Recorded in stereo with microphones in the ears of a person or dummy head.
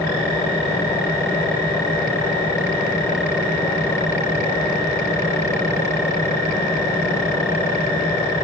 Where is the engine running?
20° left (ahead or behind), 9 m.